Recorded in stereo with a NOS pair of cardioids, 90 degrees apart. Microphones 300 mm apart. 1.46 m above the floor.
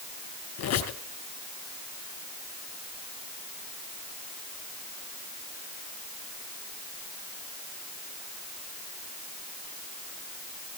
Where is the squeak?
70° left, 4.5 m.